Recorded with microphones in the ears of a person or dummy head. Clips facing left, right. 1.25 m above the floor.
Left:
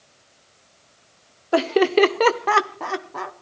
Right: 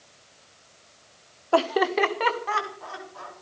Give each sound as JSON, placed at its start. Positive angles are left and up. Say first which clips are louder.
{"t": 1.5, "sound": "laughter", "louder": "left 5 dB", "side_deg": 25, "distance_m": 1.0}